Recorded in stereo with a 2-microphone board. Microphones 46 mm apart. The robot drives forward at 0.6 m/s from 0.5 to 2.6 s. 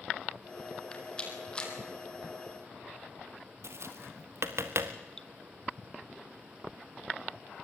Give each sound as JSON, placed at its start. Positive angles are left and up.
{"t": 0.9, "sound": "a rattle", "side_deg": 20, "distance_m": 3.5}
{"t": 3.6, "sound": "tapping", "side_deg": -70, "distance_m": 1.5}
{"t": 5.2, "sound": "dripping", "side_deg": 15, "distance_m": 0.8}